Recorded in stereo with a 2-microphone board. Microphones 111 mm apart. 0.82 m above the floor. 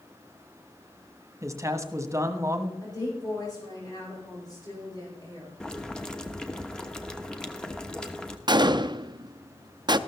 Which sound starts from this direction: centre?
Boiling, at 5.6 s.